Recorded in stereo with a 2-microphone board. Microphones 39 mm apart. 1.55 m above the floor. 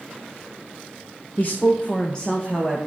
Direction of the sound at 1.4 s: 50° left (ahead or behind).